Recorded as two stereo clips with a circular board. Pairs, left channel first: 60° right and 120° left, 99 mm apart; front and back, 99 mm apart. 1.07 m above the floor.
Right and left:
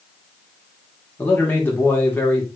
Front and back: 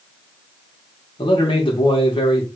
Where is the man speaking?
5° left, 1.2 m.